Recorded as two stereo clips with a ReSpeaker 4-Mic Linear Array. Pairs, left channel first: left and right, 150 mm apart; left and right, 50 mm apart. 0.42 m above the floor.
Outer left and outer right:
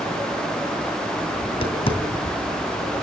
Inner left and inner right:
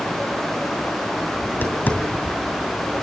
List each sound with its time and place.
1.4 s tapping: 35° left (ahead or behind), 2.5 m